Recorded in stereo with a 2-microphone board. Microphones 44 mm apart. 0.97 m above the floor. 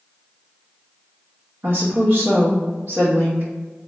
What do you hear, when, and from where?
1.6 s a woman speaking: 65° right (ahead or behind), 1.2 m